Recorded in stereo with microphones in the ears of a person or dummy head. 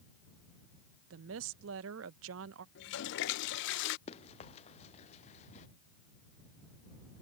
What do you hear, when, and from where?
1.1 s a woman speaking: 70° right (ahead or behind)
2.8 s a toilet flushing: 70° left (ahead or behind)
4.1 s running footsteps: 40° left (ahead or behind); by 5.7 s 45° left (ahead or behind)